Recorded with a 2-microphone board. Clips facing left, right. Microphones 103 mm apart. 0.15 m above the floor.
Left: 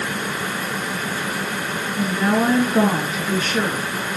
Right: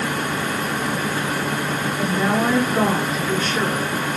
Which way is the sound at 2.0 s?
10° left (ahead or behind).